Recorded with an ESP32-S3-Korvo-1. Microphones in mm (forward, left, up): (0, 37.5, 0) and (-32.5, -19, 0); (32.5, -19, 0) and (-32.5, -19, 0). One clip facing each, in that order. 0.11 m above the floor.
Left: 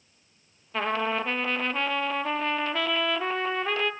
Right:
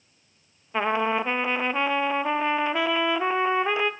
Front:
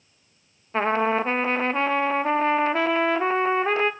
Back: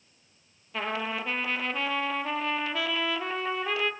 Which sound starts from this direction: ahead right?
A trumpet, at 0.7 s.